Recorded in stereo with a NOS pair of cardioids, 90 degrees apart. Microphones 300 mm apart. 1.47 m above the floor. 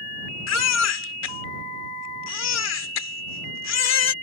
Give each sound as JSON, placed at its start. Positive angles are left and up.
{"t": 0.5, "sound": "a baby crying", "azimuth_deg": 60}